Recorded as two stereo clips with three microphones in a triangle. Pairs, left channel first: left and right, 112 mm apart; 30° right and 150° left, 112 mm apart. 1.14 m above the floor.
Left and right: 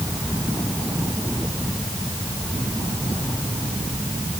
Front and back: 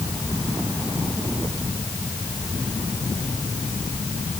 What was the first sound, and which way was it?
Only background noise.